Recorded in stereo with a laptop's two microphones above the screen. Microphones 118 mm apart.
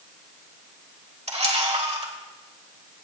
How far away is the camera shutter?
About 1.4 m.